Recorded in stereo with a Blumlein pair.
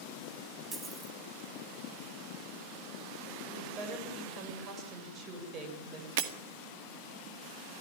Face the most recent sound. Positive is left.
turn(degrees=-50)